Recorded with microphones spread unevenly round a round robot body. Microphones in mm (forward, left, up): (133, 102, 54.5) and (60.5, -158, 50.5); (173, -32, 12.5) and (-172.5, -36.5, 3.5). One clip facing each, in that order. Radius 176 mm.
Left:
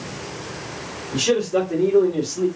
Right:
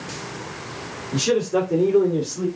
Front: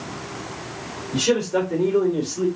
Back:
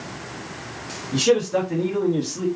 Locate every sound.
1.1 s a man speaking: 175° left, 1.7 m; by 2.5 s 150° left, 1.1 m